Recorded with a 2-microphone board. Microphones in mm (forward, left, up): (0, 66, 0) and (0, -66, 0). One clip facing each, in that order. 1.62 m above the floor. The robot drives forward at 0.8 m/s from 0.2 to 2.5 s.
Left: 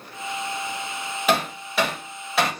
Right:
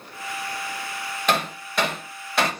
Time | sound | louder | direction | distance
1.3 | hammering | left 2 dB | 5° left (ahead or behind) | 1.2 m